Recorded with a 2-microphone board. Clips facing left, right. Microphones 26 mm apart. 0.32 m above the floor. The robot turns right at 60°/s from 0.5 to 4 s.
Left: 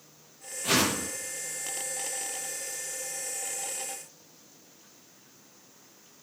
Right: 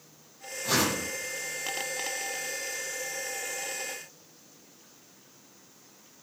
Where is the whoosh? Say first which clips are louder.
Left 1 dB; 85° left, 8 m; by 1.1 s 60° left (ahead or behind), 8 m.